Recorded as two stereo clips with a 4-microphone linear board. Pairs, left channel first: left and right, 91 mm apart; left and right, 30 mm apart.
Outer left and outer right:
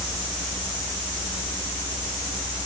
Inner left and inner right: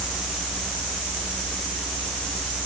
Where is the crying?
No crying in this recording.